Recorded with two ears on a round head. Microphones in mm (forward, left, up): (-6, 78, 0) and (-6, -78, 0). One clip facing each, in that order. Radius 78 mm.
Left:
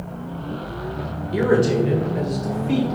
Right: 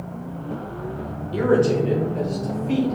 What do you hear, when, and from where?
1.3 s a man speaking: 15° left (ahead or behind), 1.1 m